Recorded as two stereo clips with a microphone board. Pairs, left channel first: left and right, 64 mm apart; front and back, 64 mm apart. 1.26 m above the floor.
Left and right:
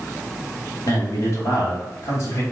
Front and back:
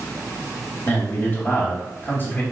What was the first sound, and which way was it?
A man speaking, 55° left.